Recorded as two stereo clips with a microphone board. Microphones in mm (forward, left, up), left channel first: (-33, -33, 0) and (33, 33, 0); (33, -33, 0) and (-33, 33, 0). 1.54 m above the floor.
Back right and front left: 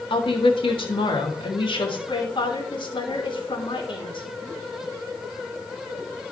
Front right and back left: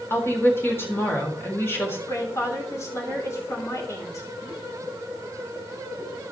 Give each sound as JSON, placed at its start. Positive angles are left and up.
{"t": 0.1, "sound": "a woman speaking", "azimuth_deg": -110, "distance_m": 3.0}
{"t": 2.1, "sound": "a woman speaking", "azimuth_deg": -100, "distance_m": 3.0}